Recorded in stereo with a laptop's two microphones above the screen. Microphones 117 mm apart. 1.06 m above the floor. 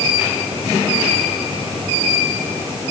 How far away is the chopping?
I don't hear chopping.